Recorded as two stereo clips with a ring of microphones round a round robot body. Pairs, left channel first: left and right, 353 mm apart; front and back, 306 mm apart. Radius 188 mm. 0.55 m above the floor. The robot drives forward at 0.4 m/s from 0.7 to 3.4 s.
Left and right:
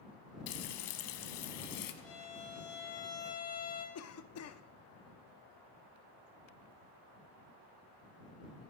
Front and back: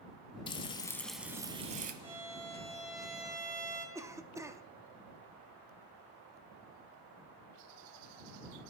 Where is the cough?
105° left, 0.8 m.